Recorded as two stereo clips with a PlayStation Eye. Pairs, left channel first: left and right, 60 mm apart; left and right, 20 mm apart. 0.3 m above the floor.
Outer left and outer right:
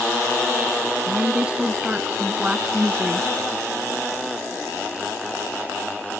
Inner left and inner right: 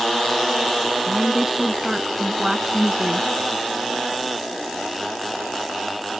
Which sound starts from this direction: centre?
A woman speaking, at 1.1 s.